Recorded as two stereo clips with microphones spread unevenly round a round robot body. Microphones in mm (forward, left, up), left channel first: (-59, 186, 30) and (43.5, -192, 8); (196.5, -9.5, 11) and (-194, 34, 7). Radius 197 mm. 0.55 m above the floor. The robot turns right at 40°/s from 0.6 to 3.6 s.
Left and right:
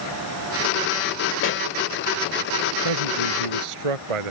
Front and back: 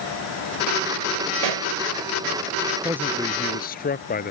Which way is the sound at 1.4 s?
165° left.